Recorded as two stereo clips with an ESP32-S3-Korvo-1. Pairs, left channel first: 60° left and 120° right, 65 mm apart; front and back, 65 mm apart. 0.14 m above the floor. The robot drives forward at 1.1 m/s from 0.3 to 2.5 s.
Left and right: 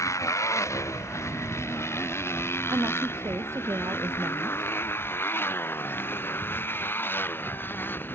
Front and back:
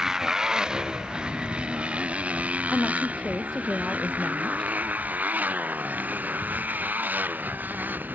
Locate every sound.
0.0 s a motorcycle: 100° left; by 8.2 s 115° left
2.7 s a woman speaking: 80° right